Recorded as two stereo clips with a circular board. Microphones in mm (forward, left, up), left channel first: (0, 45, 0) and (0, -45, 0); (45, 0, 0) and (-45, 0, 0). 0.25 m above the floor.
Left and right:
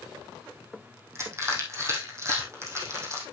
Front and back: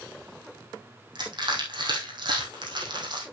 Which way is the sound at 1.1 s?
150° right.